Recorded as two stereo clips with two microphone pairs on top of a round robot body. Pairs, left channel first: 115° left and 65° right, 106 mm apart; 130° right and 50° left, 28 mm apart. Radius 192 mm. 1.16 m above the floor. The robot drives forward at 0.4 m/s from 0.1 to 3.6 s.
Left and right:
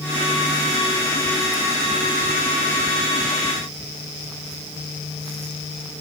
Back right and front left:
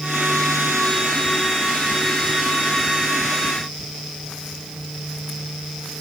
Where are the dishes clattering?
No dishes clattering in this recording.